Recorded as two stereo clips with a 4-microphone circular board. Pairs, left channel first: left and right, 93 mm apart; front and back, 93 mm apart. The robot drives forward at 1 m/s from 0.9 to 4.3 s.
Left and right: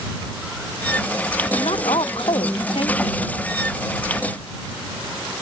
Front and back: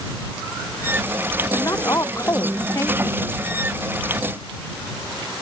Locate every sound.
1.5 s a woman speaking: 60° left; by 3.2 s 65° left